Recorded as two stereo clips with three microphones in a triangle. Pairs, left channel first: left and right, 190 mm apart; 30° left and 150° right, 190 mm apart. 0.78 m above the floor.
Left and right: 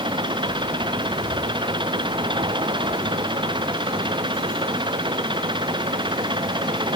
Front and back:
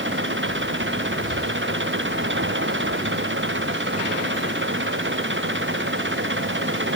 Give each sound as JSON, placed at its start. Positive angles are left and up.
{"t": 0.0, "sound": "an engine running", "azimuth_deg": -155}